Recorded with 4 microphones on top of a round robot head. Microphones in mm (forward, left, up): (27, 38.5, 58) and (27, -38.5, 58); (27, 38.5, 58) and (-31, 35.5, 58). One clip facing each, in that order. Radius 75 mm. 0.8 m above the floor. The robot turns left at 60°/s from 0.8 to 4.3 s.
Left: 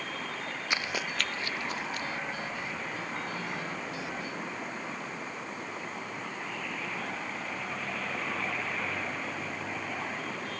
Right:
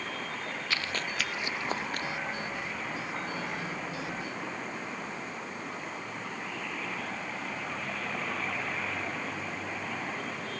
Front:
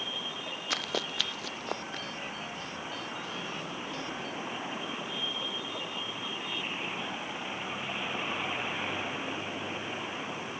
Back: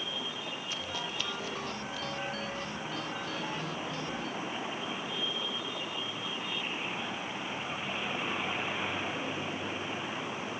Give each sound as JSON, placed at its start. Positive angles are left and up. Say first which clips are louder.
{"t": 0.7, "sound": "running footsteps", "louder": "left 2 dB, front 6 dB", "azimuth_deg": 20}